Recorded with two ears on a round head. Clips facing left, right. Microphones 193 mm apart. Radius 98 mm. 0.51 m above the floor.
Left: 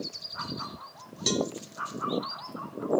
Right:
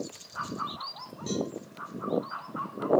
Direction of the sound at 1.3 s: 85° left.